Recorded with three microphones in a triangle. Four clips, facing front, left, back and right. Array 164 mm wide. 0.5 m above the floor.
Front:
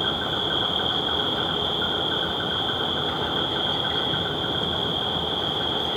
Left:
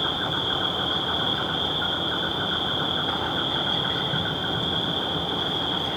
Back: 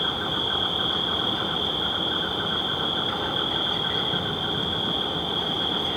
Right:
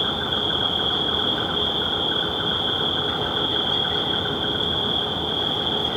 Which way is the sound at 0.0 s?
65° left.